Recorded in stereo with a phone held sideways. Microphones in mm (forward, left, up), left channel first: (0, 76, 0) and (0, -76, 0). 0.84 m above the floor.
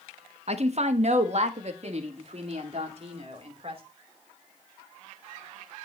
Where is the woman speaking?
45° right (ahead or behind), 1.2 m; by 3.8 s 40° right (ahead or behind), 3 m.